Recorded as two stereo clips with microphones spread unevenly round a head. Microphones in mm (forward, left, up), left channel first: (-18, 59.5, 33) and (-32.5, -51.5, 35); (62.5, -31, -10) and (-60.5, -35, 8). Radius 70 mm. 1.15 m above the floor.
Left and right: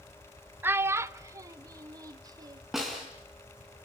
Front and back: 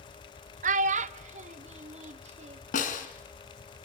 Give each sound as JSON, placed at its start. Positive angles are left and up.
{"t": 0.6, "sound": "a child speaking", "azimuth_deg": -170, "distance_m": 0.9}
{"t": 2.7, "sound": "a snare drum", "azimuth_deg": -10, "distance_m": 3.5}